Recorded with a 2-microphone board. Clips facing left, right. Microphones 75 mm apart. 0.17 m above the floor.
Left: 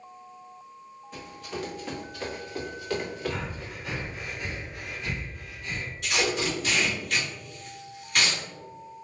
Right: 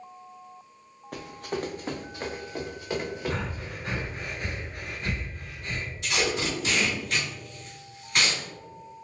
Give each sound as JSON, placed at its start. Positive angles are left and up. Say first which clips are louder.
{"t": 1.1, "sound": "running footsteps", "louder": "right 4 dB", "side_deg": -60, "distance_m": 0.6}
{"t": 3.3, "sound": "breathing", "louder": "right 2 dB", "side_deg": -40, "distance_m": 0.8}
{"t": 6.0, "sound": "tape being pulled", "louder": "left 1 dB", "side_deg": -20, "distance_m": 1.8}